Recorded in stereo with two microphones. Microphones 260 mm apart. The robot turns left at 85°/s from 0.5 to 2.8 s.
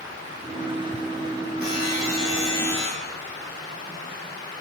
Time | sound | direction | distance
1.6 | a buzzer | 125° left | 2.5 m